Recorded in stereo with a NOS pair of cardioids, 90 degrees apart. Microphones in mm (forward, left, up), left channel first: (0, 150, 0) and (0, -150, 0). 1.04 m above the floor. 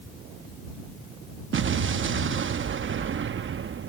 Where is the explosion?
40° right.